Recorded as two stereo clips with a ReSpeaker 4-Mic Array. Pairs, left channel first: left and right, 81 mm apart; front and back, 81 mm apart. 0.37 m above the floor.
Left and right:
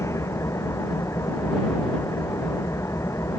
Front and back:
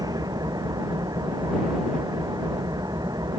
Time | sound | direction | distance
0.0 | an engine running | 145° left | ?